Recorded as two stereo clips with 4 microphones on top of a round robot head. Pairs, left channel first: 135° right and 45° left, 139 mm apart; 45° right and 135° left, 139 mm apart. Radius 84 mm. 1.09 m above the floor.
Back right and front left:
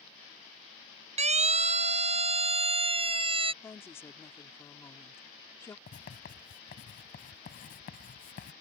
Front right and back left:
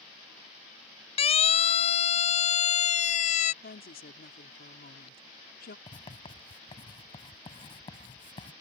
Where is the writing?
105° right.